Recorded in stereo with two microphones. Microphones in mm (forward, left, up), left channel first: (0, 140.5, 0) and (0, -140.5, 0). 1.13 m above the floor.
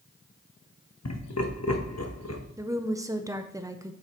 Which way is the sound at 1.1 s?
60° left (ahead or behind).